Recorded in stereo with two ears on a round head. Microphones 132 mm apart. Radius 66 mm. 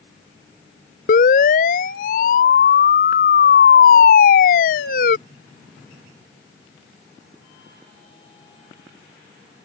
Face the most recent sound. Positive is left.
turn(degrees=60)  # may be behind; listen again after turning